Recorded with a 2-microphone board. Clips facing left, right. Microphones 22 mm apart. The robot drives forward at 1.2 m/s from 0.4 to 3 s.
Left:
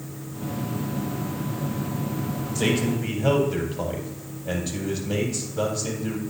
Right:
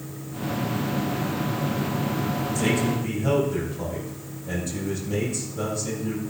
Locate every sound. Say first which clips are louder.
2.5 s a man speaking: left 2 dB; 40° left (ahead or behind), 4.5 m; by 6.2 s 45° left (ahead or behind), 4.5 m